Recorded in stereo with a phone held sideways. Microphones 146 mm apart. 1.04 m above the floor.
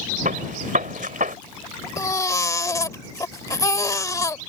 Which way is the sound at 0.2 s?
80° right.